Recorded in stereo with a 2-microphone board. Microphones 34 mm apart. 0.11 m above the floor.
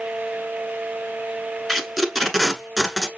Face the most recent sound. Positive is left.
turn(degrees=5)  # may be behind; listen again after turning